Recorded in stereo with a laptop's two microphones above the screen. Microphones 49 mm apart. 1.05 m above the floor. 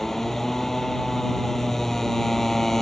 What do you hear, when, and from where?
0.0 s a motorcycle: 5° left (ahead or behind)